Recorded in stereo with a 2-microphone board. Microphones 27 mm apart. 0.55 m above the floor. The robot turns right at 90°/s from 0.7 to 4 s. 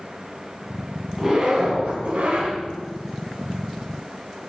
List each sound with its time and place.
1.2 s a zipper: 165° right, 5 m; by 2.5 s 40° right, 5 m